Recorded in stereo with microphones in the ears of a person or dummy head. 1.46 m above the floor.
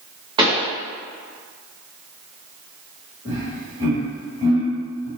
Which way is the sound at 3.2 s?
30° right (ahead or behind).